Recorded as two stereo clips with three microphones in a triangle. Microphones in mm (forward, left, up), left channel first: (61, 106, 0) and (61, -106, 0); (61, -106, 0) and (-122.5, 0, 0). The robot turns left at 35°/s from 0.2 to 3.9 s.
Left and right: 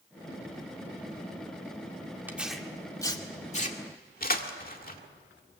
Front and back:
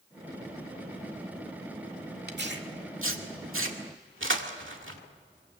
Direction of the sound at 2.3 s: 170° right.